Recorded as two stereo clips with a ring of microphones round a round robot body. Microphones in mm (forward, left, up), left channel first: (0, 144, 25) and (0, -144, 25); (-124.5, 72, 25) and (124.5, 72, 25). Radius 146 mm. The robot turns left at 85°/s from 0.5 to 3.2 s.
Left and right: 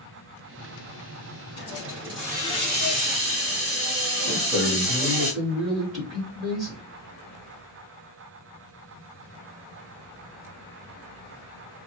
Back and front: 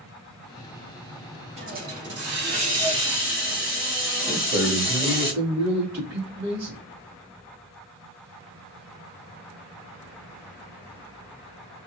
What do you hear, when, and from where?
1.6 s a hiss: 50° left, 2.0 m; by 5.3 s 85° right, 2.0 m
4.3 s a man speaking: 50° right, 2.5 m